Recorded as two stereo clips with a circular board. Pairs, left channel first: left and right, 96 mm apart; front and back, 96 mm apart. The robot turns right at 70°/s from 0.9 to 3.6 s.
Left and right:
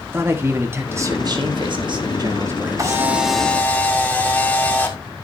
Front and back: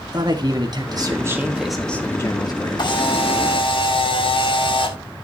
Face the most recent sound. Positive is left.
turn(degrees=20)